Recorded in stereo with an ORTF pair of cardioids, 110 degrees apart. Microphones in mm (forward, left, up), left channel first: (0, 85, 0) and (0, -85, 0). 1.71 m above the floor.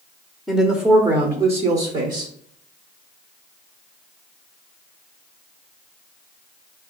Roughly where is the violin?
I don't hear a violin.